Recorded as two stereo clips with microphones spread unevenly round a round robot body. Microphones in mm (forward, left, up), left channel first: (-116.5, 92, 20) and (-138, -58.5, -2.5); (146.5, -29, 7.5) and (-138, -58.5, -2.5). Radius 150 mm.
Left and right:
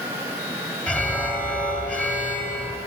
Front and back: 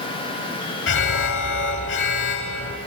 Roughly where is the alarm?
Ahead.